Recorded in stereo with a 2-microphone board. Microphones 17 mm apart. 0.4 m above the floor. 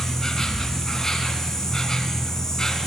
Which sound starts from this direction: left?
An insect, at 0.0 s.